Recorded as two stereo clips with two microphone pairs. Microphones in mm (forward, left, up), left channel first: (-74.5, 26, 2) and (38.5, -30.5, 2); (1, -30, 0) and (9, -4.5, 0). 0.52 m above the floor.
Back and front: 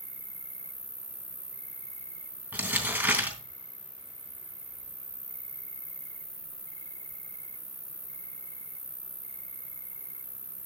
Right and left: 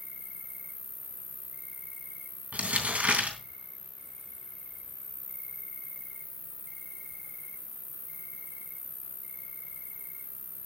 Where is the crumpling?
50° left, 3 m.